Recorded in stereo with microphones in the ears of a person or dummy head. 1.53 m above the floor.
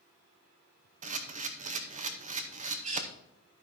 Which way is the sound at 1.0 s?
35° right (ahead or behind).